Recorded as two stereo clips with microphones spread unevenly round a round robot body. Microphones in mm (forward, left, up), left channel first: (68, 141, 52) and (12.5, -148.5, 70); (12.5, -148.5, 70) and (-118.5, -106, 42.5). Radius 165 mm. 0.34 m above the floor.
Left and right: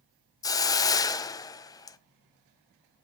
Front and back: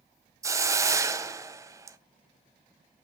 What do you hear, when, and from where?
0.4 s a hiss: 140° left, 0.7 m